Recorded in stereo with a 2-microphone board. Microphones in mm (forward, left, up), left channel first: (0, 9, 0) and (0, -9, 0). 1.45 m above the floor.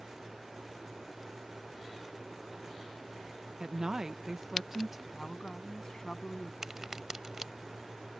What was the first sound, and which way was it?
A woman speaking, 40° right (ahead or behind).